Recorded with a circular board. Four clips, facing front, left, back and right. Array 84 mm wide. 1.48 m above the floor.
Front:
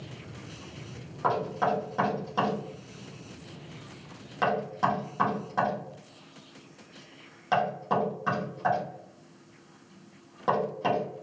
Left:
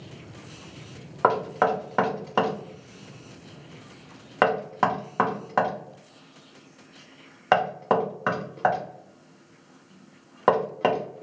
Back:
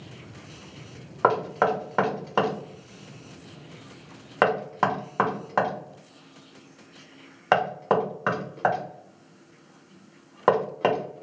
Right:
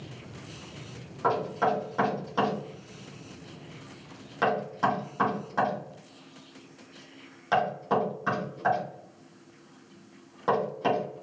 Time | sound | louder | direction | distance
1.2 | knocking | left 4 dB, back 5 dB | 135° left | 0.7 m